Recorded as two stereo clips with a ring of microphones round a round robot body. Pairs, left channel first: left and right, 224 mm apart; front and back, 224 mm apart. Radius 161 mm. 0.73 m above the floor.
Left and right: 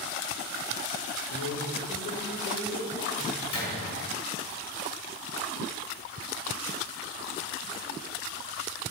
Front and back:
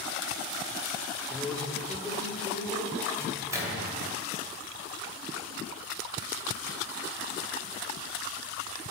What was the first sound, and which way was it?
A man speaking, 80° left.